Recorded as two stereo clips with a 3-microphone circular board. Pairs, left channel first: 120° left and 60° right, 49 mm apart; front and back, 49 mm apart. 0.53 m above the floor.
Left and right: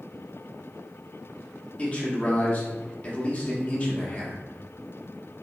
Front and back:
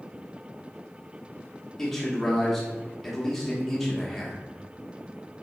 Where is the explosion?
No explosion in this recording.